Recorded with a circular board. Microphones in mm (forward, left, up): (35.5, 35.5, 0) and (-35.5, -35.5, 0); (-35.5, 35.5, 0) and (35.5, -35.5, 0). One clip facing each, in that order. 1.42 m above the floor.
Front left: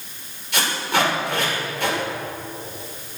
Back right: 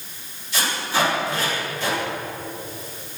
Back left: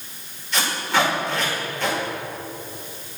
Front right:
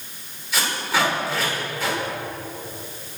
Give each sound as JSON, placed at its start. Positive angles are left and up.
{"t": 0.5, "sound": "tape being pulled", "azimuth_deg": 40, "distance_m": 6.0}